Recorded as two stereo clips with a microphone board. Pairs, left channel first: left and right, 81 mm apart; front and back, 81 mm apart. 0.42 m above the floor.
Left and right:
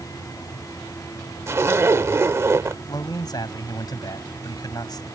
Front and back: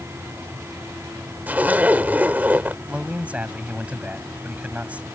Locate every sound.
1.5 s a zipper: 120° right
2.9 s a man speaking: 110° left